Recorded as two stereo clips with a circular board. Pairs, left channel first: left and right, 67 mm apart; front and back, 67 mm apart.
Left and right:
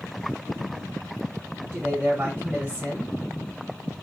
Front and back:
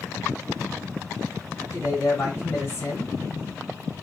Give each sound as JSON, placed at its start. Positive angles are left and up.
{"t": 1.7, "sound": "a man speaking", "azimuth_deg": -30, "distance_m": 2.0}